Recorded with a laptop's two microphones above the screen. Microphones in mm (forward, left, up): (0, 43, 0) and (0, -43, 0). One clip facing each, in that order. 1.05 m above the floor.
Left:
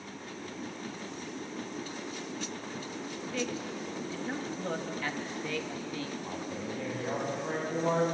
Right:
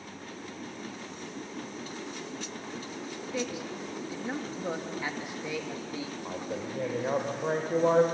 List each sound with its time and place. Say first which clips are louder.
3.3 s a man speaking: right 1 dB; 15° right (ahead or behind), 1.0 m
6.2 s a man speaking: right 2 dB; 45° right (ahead or behind), 4 m